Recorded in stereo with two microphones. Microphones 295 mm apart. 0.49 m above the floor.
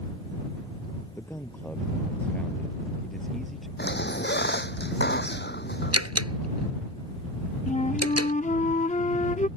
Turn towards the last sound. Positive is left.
turn(degrees=25)  # may be behind; listen again after turning